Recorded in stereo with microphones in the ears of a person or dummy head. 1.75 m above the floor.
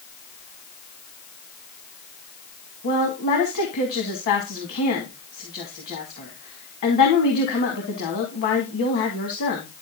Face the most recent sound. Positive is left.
turn(degrees=45)  # may be behind; listen again after turning